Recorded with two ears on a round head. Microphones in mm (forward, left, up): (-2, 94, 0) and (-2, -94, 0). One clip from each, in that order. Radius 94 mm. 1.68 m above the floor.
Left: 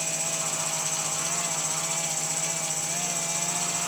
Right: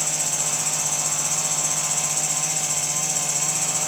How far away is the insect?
About 8 m.